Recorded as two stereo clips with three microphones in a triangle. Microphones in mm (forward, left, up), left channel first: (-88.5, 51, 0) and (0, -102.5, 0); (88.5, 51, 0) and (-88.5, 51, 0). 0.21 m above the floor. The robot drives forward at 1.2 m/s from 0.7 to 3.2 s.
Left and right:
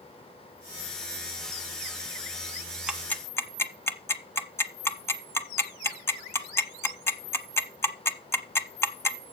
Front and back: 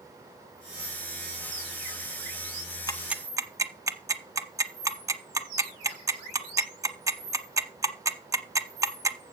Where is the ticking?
15° left, 0.6 m; by 9.2 s 160° left, 0.6 m.